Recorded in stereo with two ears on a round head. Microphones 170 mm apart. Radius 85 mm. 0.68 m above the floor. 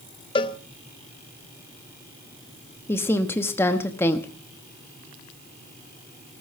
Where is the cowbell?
25° left (ahead or behind), 0.6 m.